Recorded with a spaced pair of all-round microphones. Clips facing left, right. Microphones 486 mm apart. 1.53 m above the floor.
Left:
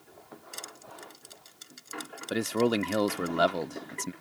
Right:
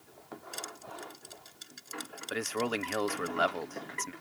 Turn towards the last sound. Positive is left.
turn(degrees=55)  # may be behind; listen again after turning